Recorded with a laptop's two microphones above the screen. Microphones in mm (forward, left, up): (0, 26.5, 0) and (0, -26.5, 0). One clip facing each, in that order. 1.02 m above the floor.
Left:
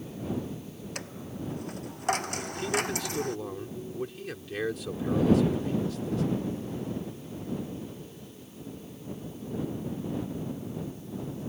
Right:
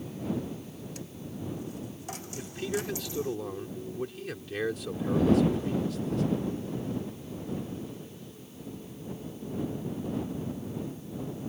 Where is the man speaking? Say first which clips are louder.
Left 3 dB; centre (ahead or behind).